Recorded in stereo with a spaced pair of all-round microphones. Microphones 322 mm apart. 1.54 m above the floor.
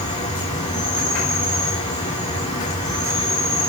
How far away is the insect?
About 6.5 m.